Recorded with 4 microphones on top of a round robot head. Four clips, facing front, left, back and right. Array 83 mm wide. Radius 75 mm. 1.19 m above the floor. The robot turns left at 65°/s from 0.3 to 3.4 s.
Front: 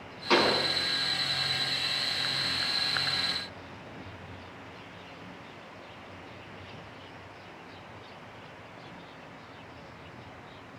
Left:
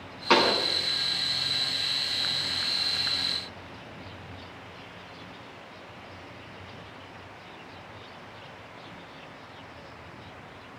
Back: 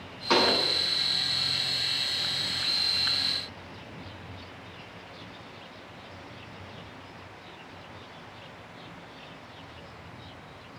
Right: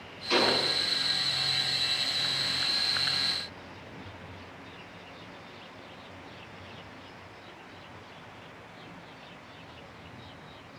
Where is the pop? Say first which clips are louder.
Left 4 dB, even; 100° left, 5.5 m; by 0.6 s 80° left, 5.5 m.